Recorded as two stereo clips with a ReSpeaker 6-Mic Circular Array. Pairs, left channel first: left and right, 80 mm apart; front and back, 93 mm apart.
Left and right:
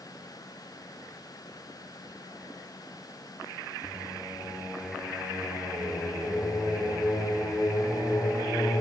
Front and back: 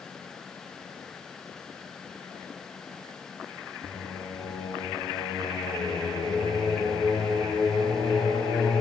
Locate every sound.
3.8 s singing: 35° left, 8 m